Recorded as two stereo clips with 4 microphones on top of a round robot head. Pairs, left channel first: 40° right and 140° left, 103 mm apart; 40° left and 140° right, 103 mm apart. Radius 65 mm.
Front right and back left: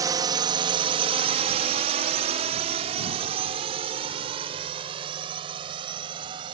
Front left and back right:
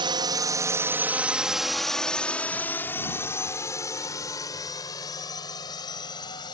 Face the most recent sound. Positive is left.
turn(degrees=90)